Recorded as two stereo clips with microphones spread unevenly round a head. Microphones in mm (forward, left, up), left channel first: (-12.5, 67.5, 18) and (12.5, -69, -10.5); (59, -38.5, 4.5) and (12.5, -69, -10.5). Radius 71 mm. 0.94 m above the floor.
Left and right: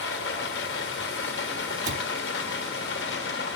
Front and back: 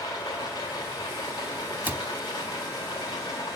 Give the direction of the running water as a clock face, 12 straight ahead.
9 o'clock.